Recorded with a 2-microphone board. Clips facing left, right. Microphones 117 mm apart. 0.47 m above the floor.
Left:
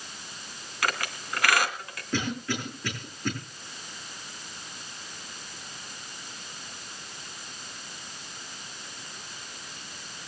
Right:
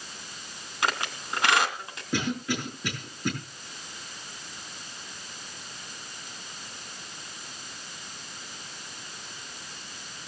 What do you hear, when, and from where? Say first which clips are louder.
0.8 s a squeak: right 1 dB; 25° right (ahead or behind), 2.5 m
2.1 s a cough: right 1 dB; 15° right (ahead or behind), 8 m